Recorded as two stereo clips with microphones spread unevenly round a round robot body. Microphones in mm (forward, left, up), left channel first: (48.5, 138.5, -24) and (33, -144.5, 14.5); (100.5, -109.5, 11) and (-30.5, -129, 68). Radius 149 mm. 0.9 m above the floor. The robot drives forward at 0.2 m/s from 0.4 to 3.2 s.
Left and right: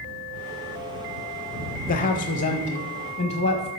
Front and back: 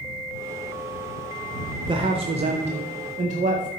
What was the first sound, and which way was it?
A man speaking, 115° left.